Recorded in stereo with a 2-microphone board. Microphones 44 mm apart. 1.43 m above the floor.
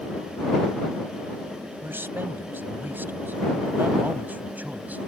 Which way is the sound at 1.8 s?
60° right (ahead or behind).